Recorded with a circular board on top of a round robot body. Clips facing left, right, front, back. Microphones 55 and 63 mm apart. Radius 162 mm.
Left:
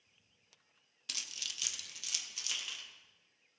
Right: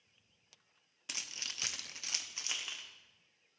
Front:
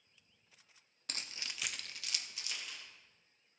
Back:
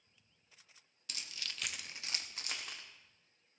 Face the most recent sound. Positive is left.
turn(degrees=-150)